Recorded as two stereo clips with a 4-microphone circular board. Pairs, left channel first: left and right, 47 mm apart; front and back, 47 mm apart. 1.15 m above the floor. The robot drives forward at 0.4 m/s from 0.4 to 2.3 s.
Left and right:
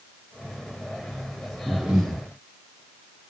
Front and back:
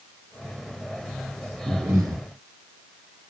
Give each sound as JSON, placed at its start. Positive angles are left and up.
{"t": 1.7, "sound": "breathing", "azimuth_deg": -170, "distance_m": 1.2}